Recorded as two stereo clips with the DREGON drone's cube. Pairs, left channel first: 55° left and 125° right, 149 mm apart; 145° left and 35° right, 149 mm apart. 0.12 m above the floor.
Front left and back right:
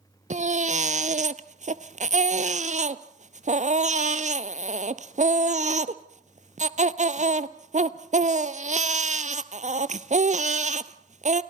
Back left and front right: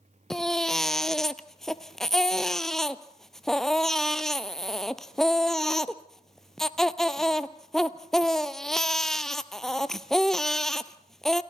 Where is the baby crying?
125° right, 0.8 m.